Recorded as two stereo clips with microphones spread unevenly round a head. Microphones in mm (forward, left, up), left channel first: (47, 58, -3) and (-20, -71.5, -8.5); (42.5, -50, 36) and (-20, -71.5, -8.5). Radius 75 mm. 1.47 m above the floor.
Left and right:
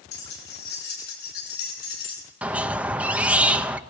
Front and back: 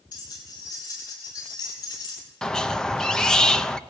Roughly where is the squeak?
Ahead right.